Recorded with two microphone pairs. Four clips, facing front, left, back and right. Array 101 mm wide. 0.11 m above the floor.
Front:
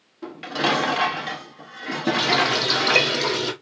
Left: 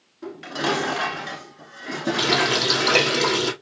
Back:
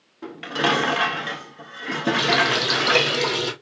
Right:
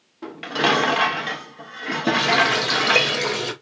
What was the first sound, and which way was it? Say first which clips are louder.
Dishes clattering: right 4 dB, back 1 dB; 135° right.